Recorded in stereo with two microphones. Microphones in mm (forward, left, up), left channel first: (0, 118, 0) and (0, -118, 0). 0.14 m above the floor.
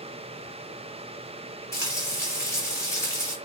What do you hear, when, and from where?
1.7 s frying: 10° left (ahead or behind), 1.3 m